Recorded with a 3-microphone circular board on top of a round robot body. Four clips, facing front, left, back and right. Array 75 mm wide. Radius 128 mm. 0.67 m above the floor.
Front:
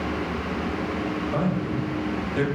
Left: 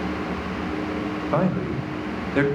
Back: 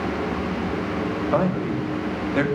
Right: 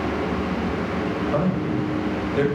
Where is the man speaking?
130° left, 1.9 m.